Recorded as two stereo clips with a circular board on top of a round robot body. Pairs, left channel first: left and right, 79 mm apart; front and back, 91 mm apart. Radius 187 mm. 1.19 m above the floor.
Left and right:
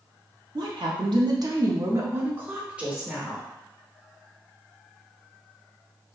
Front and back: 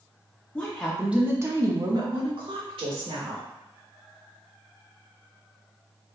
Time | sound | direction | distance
0.6 | a woman speaking | 70° right | 0.8 m